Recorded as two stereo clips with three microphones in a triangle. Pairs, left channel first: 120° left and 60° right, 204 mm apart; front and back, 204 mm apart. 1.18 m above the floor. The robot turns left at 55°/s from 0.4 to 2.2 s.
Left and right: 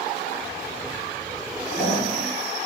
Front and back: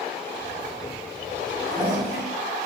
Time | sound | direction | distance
1.6 | a toilet flushing | 75° left | 1.2 m